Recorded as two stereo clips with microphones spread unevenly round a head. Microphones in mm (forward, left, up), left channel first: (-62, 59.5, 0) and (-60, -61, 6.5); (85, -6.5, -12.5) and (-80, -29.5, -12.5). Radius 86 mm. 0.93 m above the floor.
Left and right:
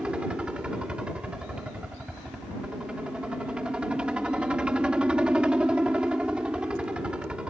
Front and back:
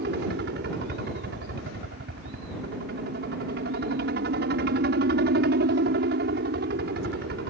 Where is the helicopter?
170° right.